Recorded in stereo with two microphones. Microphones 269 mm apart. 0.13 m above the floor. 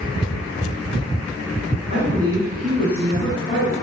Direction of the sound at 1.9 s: 25° right (ahead or behind).